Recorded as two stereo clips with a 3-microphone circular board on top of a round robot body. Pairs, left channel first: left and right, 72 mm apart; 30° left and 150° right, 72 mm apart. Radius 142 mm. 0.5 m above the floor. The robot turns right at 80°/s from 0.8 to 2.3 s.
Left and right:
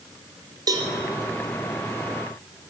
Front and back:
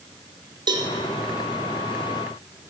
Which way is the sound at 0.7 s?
125° right.